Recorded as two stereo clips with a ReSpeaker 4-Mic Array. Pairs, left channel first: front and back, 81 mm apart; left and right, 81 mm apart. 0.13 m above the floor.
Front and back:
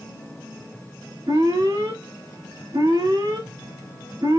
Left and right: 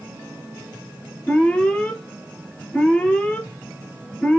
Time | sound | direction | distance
1.3 | an alarm | 165° left | 3 m